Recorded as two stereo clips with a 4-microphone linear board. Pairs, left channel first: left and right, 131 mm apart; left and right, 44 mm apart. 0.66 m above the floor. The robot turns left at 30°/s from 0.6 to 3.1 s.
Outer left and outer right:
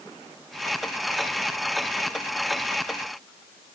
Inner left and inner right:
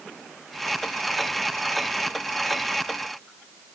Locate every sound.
Only background noise.